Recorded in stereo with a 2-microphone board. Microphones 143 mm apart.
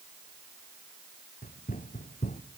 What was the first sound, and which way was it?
Running footsteps, 65° left (ahead or behind).